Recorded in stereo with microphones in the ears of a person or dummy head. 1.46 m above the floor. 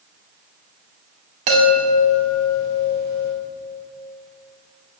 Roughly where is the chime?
Right.